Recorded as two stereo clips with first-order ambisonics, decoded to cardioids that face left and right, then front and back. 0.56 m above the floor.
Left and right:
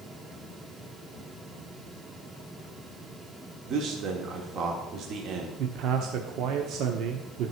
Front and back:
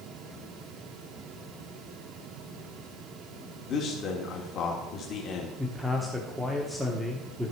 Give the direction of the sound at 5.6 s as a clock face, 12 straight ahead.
3 o'clock.